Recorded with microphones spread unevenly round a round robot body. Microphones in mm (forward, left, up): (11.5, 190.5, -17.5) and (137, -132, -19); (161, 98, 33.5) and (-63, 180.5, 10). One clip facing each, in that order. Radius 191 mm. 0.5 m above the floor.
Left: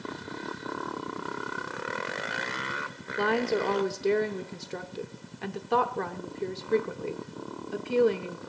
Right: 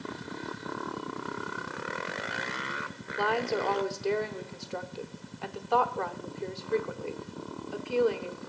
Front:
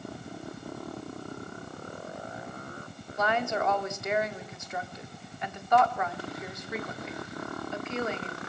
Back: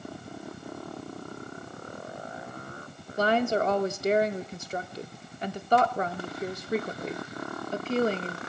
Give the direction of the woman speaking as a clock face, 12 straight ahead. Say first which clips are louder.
Left 3 dB, back 5 dB; 7 o'clock.